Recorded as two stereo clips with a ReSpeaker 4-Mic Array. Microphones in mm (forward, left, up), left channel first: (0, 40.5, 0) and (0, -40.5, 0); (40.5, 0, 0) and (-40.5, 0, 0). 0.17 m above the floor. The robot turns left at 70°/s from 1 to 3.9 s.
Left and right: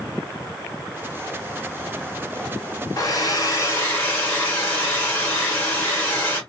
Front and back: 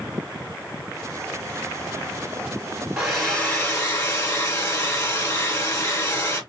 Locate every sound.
3.0 s a hair dryer: 100° left, 1.9 m; by 6.4 s 35° left, 1.9 m